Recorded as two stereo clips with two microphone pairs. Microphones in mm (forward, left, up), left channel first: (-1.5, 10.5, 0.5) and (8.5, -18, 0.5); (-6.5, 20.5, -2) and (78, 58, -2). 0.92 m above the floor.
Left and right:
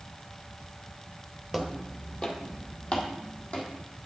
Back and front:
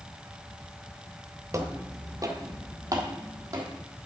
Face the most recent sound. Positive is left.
turn(degrees=75)